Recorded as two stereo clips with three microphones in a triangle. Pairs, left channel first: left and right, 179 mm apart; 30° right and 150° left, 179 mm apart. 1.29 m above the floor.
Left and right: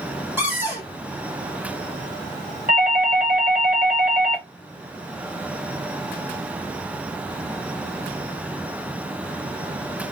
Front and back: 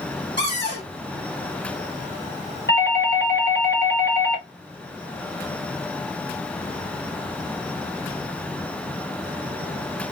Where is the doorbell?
45° right, 1.4 m.